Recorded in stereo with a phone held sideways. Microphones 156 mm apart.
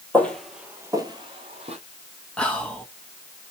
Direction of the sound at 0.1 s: 10° left (ahead or behind).